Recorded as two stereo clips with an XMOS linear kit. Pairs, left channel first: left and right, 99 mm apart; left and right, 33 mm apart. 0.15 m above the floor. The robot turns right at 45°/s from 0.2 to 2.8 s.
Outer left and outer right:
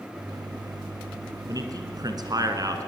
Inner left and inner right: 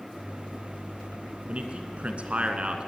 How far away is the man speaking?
About 2 m.